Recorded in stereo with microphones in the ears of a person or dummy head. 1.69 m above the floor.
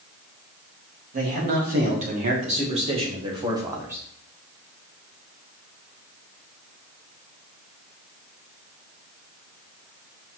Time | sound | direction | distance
1.1 | a man speaking | 55° right (ahead or behind) | 3.5 m